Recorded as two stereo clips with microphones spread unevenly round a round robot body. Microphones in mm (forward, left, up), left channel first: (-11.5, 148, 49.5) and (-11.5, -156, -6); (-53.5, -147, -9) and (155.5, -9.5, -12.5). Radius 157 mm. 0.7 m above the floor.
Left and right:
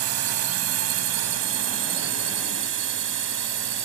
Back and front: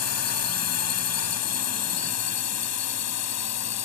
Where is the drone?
130° right; by 3.9 s 140° right.